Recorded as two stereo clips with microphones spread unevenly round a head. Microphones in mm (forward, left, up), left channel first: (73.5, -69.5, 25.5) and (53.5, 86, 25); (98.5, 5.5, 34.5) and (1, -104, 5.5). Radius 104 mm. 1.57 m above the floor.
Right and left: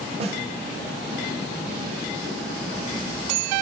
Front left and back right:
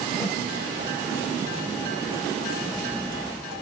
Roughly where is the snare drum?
Behind left.